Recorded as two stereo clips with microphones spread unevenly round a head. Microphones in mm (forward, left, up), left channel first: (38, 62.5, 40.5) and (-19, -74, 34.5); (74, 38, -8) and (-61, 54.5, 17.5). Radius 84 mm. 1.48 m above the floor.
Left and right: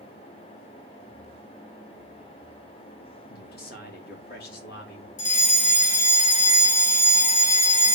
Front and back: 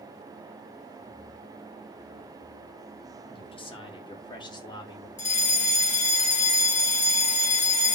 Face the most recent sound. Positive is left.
turn(degrees=25)